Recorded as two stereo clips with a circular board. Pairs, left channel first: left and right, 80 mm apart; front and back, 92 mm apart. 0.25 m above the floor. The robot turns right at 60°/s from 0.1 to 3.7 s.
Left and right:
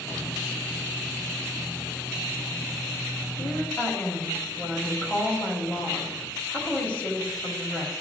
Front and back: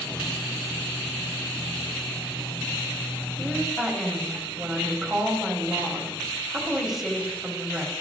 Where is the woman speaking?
75° left, 1.3 m; by 8.0 s 95° left, 1.3 m.